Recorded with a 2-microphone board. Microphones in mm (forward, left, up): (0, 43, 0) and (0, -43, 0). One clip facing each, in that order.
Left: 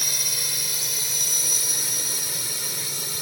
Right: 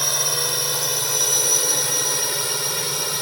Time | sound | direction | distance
0.0 | a drone | 60° right (ahead or behind) | ?